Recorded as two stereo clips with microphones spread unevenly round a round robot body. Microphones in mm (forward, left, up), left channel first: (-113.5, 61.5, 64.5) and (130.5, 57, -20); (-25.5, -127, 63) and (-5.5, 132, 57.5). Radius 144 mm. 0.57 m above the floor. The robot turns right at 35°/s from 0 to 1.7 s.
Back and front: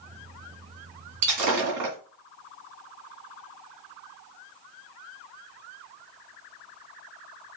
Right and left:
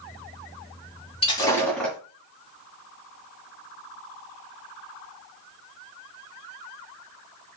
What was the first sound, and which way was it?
Breaking glass, 25° right.